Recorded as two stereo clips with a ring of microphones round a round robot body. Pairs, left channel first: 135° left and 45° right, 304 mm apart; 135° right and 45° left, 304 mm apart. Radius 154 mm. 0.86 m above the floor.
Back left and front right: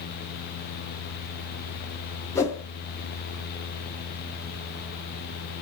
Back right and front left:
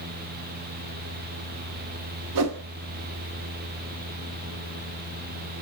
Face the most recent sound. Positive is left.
turn(degrees=55)